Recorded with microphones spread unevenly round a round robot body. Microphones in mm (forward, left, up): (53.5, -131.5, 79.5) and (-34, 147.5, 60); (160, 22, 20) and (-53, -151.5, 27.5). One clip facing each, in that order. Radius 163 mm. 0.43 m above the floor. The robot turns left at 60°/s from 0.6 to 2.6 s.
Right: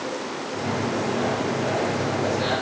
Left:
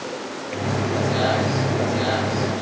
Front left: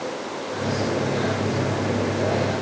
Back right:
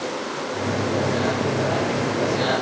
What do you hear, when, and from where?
Only background noise.